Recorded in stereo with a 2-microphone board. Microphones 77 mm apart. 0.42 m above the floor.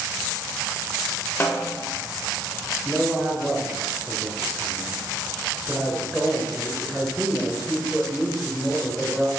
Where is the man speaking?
Centre (ahead or behind), 1.2 m.